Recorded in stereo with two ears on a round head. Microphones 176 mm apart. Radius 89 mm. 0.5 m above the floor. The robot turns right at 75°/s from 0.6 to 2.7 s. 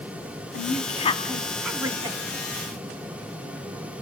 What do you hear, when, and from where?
0.5 s a woman speaking: 100° left, 1.4 m; by 2.2 s 140° right, 1.4 m